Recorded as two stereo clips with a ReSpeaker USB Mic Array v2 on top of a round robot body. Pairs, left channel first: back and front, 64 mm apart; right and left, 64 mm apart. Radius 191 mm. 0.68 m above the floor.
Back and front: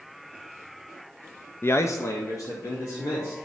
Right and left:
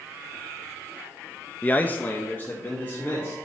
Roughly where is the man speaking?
Behind right.